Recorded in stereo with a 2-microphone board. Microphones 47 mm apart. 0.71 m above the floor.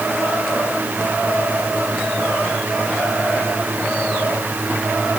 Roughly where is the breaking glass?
No breaking glass in this recording.